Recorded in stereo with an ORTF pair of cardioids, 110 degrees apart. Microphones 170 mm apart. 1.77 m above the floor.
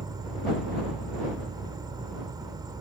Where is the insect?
25° right.